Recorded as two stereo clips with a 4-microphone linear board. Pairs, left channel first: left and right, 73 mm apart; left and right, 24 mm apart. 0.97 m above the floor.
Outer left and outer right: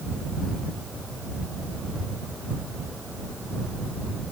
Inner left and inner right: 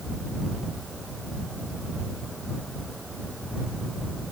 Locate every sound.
Only background noise.